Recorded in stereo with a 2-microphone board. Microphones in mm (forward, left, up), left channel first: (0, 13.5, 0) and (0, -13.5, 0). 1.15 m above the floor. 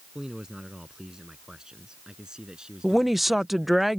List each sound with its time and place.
0.1 s a man speaking: 20° right (ahead or behind); by 3.8 s 25° right (ahead or behind)
2.8 s a woman speaking: 10° right (ahead or behind)